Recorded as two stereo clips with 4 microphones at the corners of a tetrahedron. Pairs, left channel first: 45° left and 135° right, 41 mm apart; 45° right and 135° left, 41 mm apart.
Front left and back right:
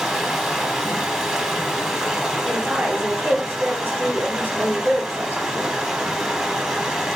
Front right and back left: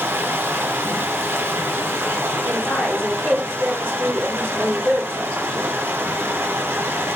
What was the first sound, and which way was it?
Running water, 145° left.